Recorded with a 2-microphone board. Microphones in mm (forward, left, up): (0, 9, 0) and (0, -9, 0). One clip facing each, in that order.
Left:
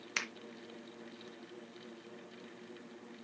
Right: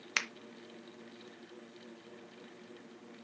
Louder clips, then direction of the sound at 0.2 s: Right 3 dB; 20° right (ahead or behind).